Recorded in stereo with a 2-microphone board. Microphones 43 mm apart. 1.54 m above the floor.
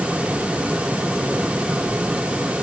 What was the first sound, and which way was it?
Only background noise.